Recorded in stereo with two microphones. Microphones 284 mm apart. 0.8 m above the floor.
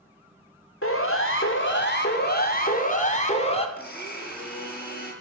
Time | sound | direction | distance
0.8 | a siren | 50° left (ahead or behind) | 3 m
3.8 | a blender | 35° left (ahead or behind) | 6 m